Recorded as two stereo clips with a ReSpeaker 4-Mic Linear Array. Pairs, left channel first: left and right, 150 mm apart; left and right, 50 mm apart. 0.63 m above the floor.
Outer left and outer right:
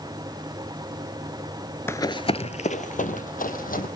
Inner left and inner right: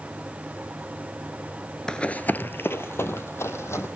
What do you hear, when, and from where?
1.9 s running footsteps: 15° left (ahead or behind), 0.6 m; by 3.9 s 70° left (ahead or behind), 1.8 m